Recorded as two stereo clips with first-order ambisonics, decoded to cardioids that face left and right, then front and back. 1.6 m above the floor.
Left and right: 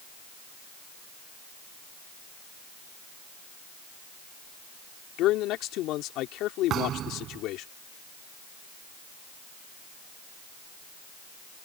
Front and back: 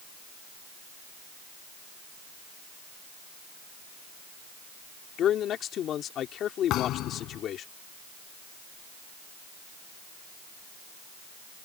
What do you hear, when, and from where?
5.2 s a man speaking: 55° left
6.7 s a thud: 40° right